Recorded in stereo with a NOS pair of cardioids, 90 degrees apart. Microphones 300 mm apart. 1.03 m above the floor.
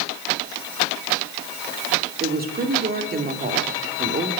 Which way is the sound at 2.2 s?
30° right.